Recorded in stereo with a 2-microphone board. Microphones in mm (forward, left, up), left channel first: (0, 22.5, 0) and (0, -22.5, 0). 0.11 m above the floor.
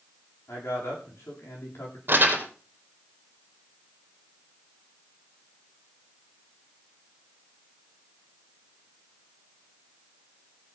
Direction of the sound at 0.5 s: 75° left (ahead or behind).